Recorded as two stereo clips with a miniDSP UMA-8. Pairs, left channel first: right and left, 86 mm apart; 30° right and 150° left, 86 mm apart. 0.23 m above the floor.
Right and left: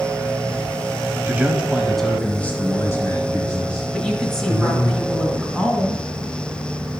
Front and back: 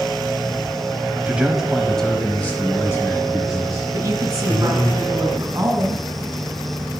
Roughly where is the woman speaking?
Behind.